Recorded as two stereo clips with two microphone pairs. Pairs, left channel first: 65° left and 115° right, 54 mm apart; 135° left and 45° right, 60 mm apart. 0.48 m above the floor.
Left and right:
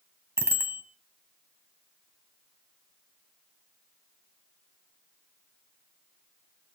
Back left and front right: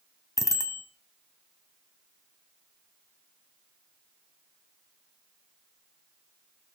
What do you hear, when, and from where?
0.4 s a bicycle bell: 70° right, 2.5 m